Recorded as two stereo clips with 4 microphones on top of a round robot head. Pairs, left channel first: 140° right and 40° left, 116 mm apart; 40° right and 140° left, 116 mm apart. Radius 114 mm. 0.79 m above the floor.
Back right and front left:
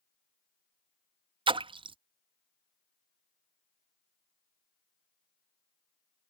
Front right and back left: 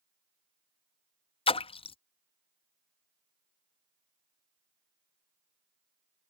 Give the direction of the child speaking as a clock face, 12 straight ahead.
I don't hear a child speaking.